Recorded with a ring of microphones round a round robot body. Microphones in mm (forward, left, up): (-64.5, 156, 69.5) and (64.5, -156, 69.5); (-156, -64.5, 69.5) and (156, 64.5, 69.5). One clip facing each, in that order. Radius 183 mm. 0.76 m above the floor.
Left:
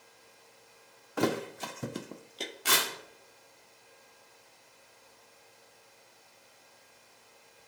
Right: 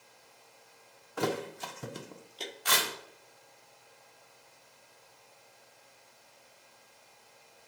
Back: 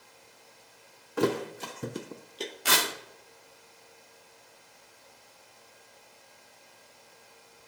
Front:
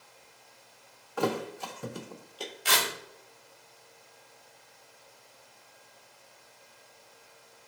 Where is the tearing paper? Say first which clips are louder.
Left 1 dB, back 1 dB; 165° left, 2.0 m.